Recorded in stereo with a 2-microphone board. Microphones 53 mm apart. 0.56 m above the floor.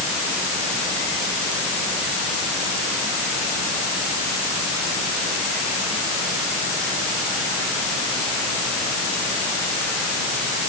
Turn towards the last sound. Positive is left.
No sound to turn to.